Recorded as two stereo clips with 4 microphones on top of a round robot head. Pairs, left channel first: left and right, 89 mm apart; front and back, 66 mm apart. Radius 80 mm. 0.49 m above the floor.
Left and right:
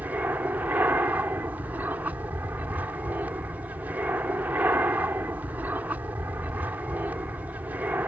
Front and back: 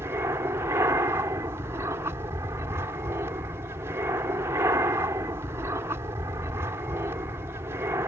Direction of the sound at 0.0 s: 155° right.